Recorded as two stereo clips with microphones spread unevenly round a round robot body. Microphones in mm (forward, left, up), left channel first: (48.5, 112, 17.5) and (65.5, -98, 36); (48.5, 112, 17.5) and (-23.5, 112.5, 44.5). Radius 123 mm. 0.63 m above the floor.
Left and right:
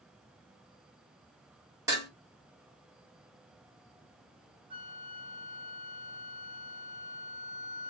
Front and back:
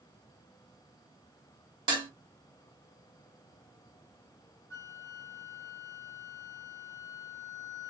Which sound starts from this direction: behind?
Dishes clattering, at 1.9 s.